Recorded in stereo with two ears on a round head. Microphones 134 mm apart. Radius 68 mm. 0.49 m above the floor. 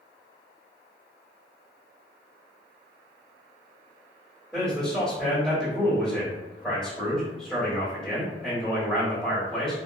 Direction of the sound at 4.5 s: 5° right (ahead or behind).